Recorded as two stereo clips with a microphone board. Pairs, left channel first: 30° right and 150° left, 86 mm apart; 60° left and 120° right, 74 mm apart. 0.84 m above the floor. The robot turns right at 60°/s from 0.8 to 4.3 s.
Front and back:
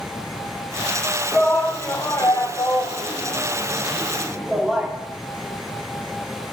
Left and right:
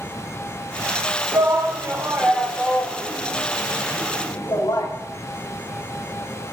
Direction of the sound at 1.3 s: 115° right.